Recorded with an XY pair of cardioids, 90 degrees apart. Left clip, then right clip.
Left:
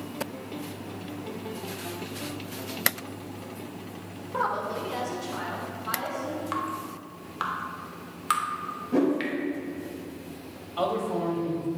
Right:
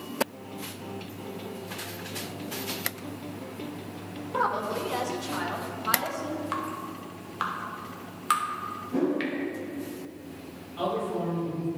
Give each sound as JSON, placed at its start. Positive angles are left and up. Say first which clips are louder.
{"t": 4.3, "sound": "a woman speaking", "louder": "right 1 dB", "azimuth_deg": -15, "distance_m": 1.2}
{"t": 6.5, "sound": "dripping", "louder": "left 1 dB", "azimuth_deg": -5, "distance_m": 1.2}
{"t": 8.9, "sound": "a whoosh", "louder": "left 3 dB", "azimuth_deg": 60, "distance_m": 2.0}
{"t": 10.8, "sound": "a man speaking", "louder": "left 2 dB", "azimuth_deg": 70, "distance_m": 3.0}